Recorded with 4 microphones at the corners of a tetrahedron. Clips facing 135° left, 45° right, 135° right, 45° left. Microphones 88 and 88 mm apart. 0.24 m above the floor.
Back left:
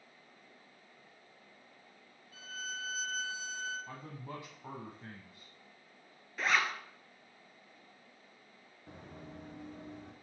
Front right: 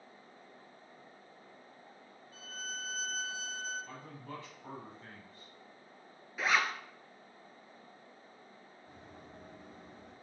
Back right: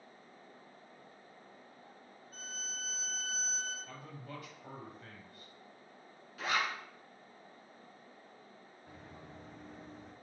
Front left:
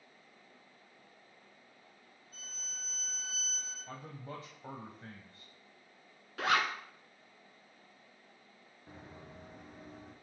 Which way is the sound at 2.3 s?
100° right.